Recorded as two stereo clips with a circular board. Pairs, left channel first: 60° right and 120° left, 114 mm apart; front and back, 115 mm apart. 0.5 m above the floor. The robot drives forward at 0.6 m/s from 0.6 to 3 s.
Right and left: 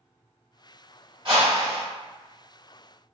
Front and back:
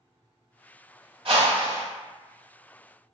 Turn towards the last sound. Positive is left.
turn(degrees=165)